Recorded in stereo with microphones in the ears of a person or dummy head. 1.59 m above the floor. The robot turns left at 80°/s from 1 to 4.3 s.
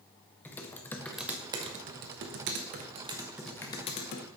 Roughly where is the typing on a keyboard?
Centre.